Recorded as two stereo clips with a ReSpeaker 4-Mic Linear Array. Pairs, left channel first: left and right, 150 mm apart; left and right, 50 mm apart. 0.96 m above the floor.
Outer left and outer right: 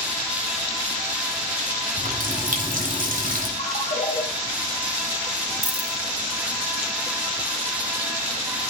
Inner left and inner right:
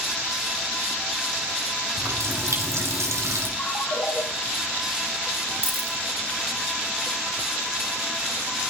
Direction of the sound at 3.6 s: 50° left (ahead or behind).